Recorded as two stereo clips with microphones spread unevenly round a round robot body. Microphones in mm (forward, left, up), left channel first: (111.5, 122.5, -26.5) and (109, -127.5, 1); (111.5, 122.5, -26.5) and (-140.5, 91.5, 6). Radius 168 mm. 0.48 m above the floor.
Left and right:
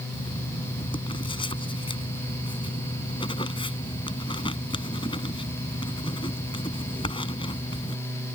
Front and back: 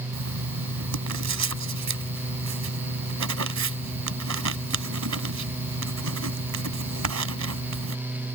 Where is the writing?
165° left.